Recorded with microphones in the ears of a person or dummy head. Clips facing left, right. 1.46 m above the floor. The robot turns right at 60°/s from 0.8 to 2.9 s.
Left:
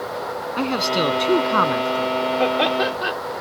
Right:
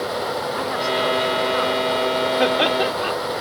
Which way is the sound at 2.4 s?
15° right.